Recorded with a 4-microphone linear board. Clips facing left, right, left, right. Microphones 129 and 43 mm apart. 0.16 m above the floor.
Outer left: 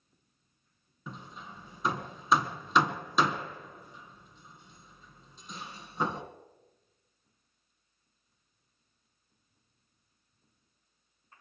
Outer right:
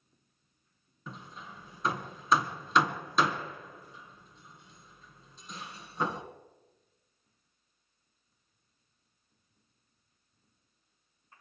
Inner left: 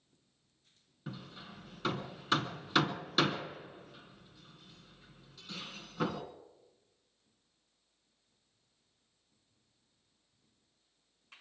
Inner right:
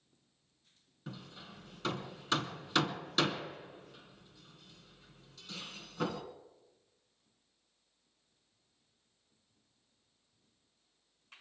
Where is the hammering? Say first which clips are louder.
Outer left 1 dB, inner left 2 dB; 5° left (ahead or behind), 1.6 m.